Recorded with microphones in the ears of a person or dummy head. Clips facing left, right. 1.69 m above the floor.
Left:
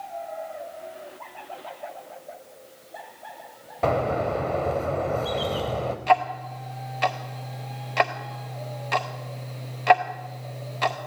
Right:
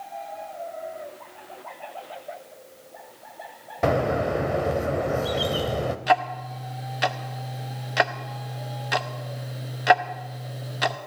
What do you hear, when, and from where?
3.8 s a bird: 15° right (ahead or behind), 0.6 m
6.1 s ticking: 10° right (ahead or behind), 0.6 m